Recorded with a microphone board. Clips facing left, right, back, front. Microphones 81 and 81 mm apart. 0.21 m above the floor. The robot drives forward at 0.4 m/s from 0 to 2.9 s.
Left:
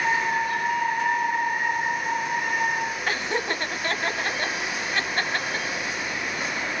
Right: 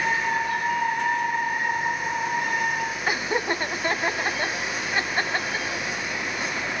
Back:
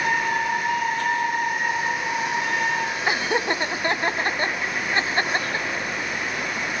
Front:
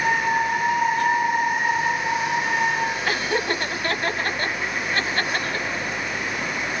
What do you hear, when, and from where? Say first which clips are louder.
3.1 s laughter: right 4 dB, back 1 dB; 145° right, 1.0 m